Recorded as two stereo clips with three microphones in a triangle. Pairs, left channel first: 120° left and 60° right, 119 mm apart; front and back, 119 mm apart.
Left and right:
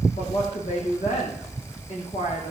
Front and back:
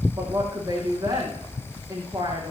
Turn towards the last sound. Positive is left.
turn(degrees=120)